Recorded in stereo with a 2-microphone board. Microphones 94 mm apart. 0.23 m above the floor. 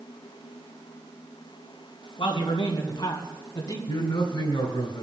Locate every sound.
2.2 s a man speaking: 60° left (ahead or behind), 2.5 m; by 3.8 s 45° left (ahead or behind), 1.7 m
3.9 s a man speaking: 55° left (ahead or behind), 2.5 m